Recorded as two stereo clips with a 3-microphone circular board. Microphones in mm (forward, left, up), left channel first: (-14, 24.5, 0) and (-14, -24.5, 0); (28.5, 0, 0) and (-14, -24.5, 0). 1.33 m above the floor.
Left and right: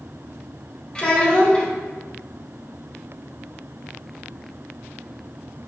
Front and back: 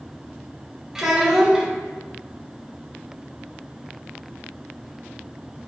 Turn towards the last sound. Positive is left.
turn(degrees=140)